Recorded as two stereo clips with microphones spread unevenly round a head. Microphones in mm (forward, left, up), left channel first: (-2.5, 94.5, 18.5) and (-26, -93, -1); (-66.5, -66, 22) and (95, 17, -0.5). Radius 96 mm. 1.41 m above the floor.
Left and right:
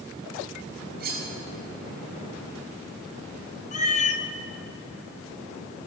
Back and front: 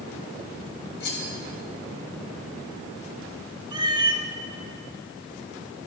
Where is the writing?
No writing in this recording.